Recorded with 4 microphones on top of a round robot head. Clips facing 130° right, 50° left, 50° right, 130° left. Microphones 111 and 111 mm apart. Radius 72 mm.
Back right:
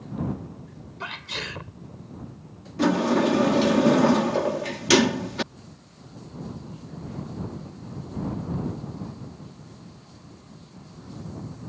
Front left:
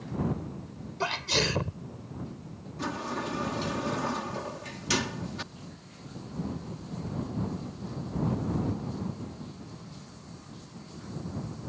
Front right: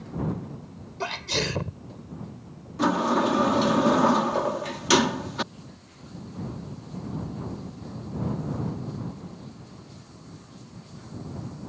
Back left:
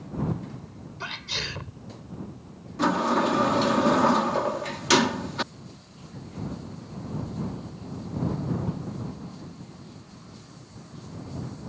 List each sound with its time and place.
1.0 s a sneeze: 5° right
2.8 s a sliding door: 135° right